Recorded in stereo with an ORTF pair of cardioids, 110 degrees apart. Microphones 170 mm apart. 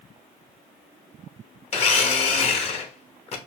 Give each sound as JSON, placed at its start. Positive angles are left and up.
{"t": 1.7, "sound": "a blender", "azimuth_deg": 40, "distance_m": 1.1}